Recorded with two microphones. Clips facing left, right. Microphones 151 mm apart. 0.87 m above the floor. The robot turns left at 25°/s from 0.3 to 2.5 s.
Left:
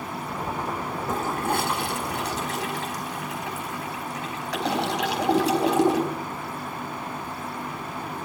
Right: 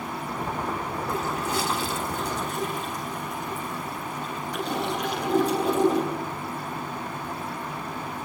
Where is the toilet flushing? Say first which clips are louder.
Left 3 dB; 45° left (ahead or behind), 4 m; by 6.1 s 80° left, 4 m.